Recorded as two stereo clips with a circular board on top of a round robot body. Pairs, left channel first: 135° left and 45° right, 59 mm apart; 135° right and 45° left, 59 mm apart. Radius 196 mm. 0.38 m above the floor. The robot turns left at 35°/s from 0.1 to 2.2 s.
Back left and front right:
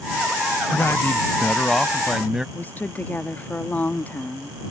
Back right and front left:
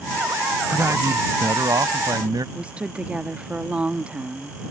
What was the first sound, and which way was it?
A man speaking, 90° left.